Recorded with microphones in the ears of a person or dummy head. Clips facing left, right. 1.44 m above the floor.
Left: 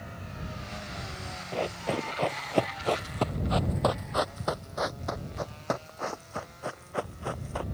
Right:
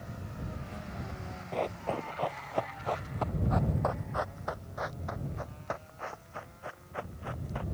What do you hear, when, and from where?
1.5 s running footsteps: 5° left (ahead or behind); by 7.6 s 65° left (ahead or behind)